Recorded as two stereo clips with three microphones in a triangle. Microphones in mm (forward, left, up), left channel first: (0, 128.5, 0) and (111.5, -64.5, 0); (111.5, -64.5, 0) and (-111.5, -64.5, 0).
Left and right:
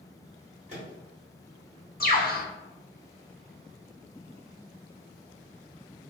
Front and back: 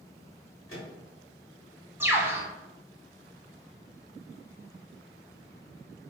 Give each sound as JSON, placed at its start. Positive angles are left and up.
{"t": 0.7, "sound": "a microwave", "azimuth_deg": -5, "distance_m": 1.5}
{"t": 2.0, "sound": "a bird", "azimuth_deg": 105, "distance_m": 0.6}